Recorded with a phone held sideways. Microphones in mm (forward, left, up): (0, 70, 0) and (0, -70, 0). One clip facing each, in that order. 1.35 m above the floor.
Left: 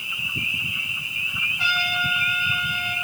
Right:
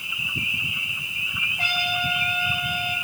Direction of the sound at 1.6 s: 55° right (ahead or behind).